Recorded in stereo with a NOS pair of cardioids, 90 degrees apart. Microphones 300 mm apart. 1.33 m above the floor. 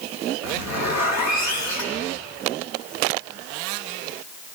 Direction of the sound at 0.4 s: 65° left.